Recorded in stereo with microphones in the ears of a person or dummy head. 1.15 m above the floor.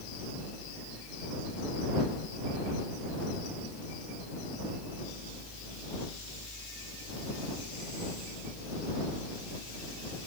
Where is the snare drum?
I don't hear a snare drum.